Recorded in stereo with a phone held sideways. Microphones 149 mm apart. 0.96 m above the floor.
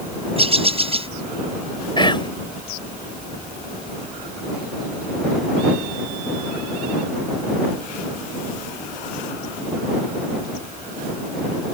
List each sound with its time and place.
0.4 s a bird: 40° right (ahead or behind)
2.0 s whispering: 30° left (ahead or behind)